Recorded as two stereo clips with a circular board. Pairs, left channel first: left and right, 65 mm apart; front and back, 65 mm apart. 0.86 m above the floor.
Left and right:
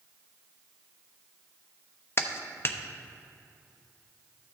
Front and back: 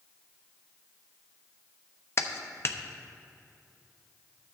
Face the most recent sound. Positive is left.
turn(degrees=45)